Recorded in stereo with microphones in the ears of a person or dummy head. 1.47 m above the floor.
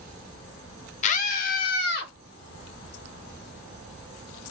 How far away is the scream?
About 0.6 m.